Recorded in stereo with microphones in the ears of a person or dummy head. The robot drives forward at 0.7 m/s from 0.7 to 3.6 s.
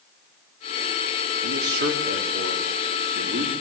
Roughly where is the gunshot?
I don't hear a gunshot.